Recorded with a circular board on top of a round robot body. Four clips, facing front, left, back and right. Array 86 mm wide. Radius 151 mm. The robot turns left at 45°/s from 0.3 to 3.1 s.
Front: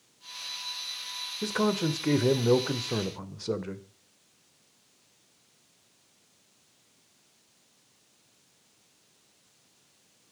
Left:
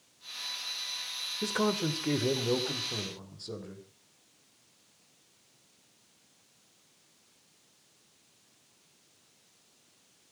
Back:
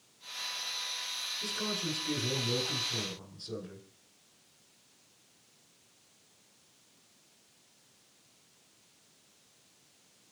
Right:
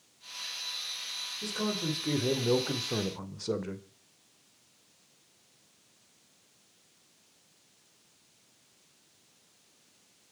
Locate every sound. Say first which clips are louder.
1.4 s a man speaking: left 4 dB, front 11 dB; 40° left, 2.5 m; by 3.8 s 35° right, 2.5 m